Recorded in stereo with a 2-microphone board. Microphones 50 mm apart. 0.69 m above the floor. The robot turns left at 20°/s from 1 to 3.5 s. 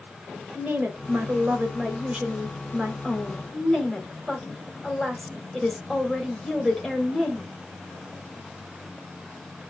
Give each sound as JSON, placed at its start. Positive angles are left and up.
{"t": 0.6, "sound": "a woman speaking", "azimuth_deg": -135, "distance_m": 2.0}